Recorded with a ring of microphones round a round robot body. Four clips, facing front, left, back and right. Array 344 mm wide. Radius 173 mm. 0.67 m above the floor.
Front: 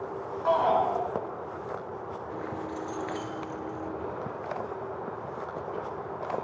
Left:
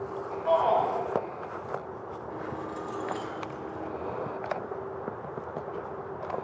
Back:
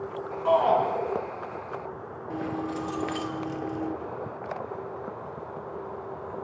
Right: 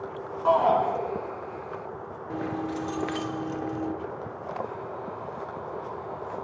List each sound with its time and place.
0.5 s a shout: 80° right, 8.5 m
2.3 s keys jangling: 125° right, 1.4 m